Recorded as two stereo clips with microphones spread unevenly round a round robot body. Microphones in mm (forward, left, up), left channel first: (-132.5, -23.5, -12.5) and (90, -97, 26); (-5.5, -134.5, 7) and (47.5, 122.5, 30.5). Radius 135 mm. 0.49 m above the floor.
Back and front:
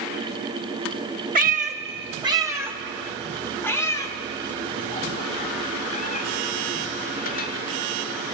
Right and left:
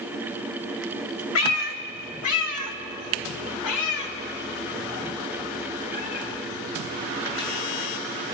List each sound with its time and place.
1.4 s a cat meowing: 75° right, 1.4 m; by 7.5 s 145° right, 3.5 m